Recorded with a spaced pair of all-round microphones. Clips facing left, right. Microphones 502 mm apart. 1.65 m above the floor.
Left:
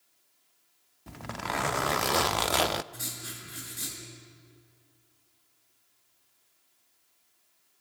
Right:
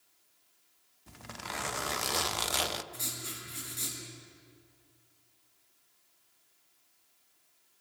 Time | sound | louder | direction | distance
1.1 | a zipper | left 8 dB | 75° left (ahead or behind) | 0.5 m
2.9 | writing | even | 35° left (ahead or behind) | 5.5 m